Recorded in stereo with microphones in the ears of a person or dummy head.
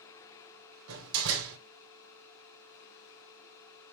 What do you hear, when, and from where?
0.9 s a door slam: 75° right (ahead or behind), 2.5 m